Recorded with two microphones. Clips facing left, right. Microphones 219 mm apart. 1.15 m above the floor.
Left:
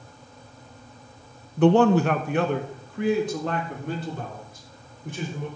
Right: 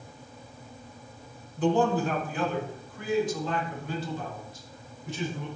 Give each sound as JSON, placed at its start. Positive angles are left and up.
{"t": 1.6, "sound": "a man speaking", "side_deg": 65, "distance_m": 0.8}